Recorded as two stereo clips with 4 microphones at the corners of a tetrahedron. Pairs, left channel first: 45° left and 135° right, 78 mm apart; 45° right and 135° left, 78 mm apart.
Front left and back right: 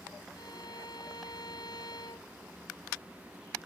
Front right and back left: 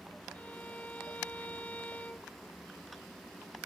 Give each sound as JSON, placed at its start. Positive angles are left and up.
{"t": 0.3, "sound": "a violin", "azimuth_deg": 25}